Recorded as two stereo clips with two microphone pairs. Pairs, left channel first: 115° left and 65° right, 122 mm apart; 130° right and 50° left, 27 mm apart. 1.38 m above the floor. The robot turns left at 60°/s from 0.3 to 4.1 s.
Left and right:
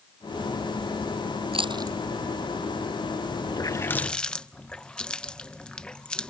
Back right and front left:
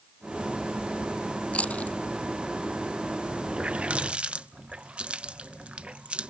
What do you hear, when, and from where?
1.5 s chewing: 105° right; by 2.0 s 130° right
3.5 s a running tap: 70° left; by 6.3 s 30° left